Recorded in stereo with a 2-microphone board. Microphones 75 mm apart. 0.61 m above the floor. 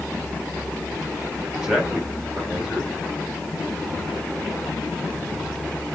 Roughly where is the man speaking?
Centre.